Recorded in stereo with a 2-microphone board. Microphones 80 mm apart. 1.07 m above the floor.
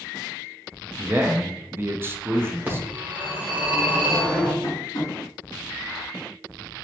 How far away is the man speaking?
About 0.5 m.